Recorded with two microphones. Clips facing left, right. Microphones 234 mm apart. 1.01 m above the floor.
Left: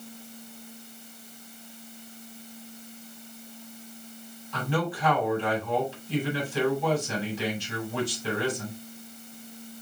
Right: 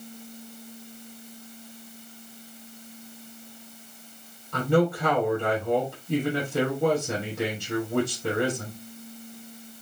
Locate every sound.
4.5 s a man speaking: 65° right (ahead or behind), 7 m